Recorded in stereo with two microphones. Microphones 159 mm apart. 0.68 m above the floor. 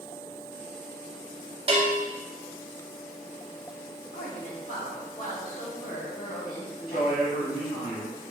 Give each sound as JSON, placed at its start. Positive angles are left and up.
{"t": 1.7, "sound": "a bell", "side_deg": -40, "distance_m": 0.9}
{"t": 4.1, "sound": "a woman speaking", "side_deg": 60, "distance_m": 1.3}
{"t": 6.9, "sound": "a man speaking", "side_deg": 65, "distance_m": 1.4}